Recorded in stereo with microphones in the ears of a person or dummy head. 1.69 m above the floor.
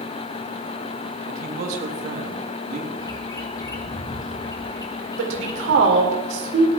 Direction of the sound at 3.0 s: 20° left (ahead or behind).